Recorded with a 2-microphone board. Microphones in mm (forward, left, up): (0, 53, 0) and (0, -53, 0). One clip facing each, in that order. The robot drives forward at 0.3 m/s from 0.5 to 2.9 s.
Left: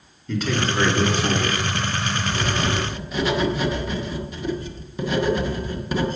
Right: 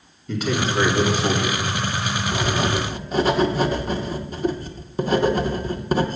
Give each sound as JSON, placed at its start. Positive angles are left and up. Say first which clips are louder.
{"t": 0.3, "sound": "a man speaking", "louder": "right 1 dB", "side_deg": -5, "distance_m": 2.5}
{"t": 2.3, "sound": "writing", "louder": "right 3 dB", "side_deg": -45, "distance_m": 0.9}